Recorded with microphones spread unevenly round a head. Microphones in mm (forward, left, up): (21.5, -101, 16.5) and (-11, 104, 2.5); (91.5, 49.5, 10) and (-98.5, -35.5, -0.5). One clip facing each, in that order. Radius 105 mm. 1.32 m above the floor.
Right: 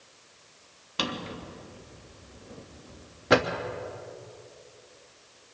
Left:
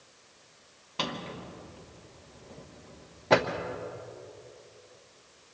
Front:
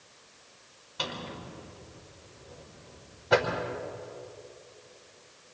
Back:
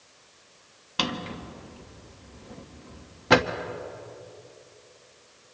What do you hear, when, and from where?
1.0 s a drawer: 155° right, 1.2 m